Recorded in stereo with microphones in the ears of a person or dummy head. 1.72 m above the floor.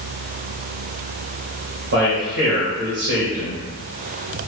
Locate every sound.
1.9 s a man speaking: 40° right (ahead or behind), 0.6 m